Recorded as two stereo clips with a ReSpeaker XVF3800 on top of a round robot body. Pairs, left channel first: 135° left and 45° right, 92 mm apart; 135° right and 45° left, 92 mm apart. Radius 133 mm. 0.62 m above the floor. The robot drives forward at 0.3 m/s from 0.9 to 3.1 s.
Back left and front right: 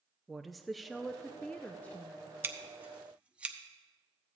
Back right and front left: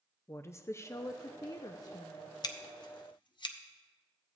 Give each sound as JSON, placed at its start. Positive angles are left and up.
{"t": 0.3, "sound": "a woman speaking", "azimuth_deg": -135, "distance_m": 0.6}
{"t": 2.4, "sound": "scissors", "azimuth_deg": -105, "distance_m": 0.9}